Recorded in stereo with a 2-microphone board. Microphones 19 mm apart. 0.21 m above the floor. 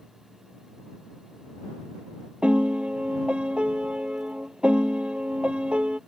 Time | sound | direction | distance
2.4 | a piano | 75° right (ahead or behind) | ?